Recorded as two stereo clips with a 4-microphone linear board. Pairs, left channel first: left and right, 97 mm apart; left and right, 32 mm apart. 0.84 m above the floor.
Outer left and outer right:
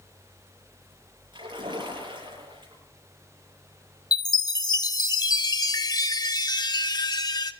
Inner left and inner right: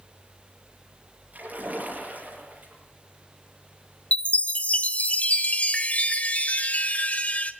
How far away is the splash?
About 7.5 m.